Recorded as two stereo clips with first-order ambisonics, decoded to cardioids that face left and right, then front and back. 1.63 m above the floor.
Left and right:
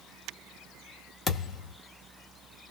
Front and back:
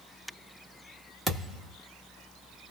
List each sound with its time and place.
1.3 s a thud: 110° left, 1.2 m